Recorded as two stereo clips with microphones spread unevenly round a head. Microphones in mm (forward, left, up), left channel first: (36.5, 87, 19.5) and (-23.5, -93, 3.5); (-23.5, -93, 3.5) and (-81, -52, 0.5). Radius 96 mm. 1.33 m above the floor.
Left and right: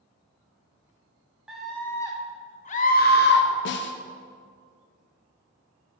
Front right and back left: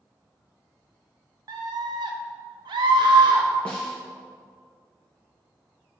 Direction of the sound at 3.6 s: 45° left.